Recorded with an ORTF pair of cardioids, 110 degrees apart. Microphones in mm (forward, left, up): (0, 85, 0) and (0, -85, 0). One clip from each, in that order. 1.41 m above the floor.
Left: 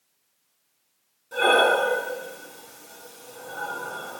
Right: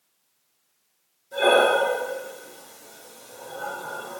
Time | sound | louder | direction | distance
1.3 | breathing | even | 60° left | 2 m